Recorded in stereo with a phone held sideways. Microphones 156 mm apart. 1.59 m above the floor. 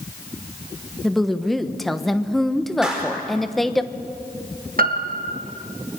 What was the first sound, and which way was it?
A woman speaking, centre (ahead or behind).